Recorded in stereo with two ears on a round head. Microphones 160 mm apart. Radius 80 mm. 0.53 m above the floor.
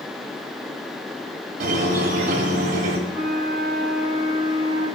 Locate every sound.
1.6 s a squeak: 55° right (ahead or behind), 1.8 m
3.1 s a flute: 55° left (ahead or behind), 3.5 m